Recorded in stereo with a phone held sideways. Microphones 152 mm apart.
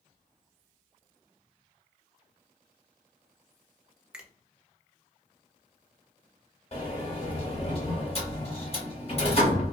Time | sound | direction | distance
4.1 | a finger snap | 5° right (ahead or behind) | 0.6 m
6.7 | a sliding door | 40° left (ahead or behind) | 1.0 m